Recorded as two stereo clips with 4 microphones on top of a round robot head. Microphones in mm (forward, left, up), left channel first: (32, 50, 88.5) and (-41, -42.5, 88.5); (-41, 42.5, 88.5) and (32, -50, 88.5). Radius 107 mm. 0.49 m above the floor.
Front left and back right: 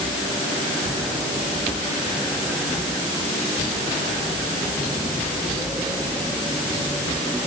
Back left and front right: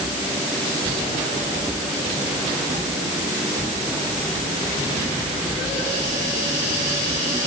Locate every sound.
Only background noise.